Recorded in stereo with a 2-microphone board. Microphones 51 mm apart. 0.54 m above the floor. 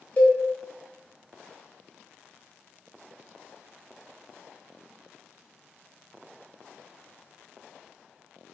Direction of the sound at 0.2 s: 35° left (ahead or behind).